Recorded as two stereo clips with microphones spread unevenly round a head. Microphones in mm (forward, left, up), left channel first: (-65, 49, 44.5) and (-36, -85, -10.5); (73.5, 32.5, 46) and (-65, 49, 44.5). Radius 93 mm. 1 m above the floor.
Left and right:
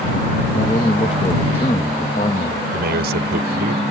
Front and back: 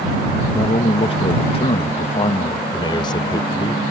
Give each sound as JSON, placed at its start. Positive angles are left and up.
{"t": 0.5, "sound": "a man speaking", "azimuth_deg": 35}
{"t": 2.7, "sound": "a man speaking", "azimuth_deg": -70}